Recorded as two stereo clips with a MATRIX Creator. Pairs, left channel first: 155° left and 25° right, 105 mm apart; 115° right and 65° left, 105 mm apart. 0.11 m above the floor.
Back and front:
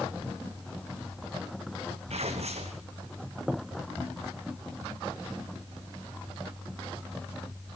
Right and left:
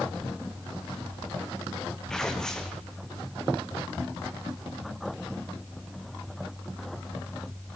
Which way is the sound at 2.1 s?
30° right.